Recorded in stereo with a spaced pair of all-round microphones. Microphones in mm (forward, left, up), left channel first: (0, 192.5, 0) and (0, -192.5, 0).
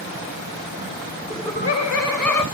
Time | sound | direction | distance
1.3 | laughter | 15° right (ahead or behind) | 0.6 m